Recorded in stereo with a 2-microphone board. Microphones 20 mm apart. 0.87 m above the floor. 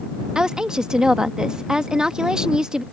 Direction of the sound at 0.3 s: 40° right (ahead or behind).